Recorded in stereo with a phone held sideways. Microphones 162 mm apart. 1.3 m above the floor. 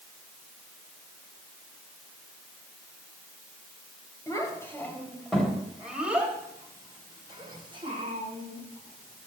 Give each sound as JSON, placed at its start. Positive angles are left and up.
{"t": 4.3, "sound": "a child speaking", "side_deg": 20, "distance_m": 3.5}